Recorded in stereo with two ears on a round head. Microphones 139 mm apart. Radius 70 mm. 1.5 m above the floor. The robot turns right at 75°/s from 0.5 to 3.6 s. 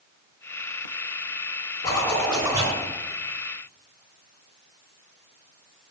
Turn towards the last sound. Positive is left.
turn(degrees=-80)